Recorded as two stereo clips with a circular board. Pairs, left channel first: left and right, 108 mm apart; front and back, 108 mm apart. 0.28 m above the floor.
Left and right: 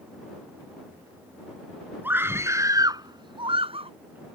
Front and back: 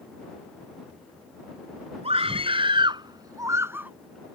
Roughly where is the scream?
Behind.